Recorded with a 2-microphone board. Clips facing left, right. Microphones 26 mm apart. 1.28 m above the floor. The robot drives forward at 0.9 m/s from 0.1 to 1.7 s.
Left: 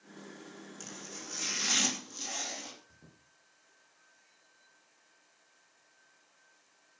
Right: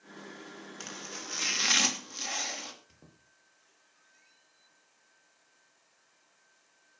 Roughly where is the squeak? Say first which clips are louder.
Even; right.